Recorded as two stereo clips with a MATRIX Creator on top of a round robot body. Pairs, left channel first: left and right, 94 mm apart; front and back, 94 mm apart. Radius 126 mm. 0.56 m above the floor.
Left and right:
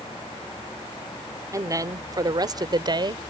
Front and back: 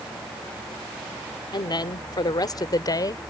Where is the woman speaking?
35° right; by 3.3 s 50° right.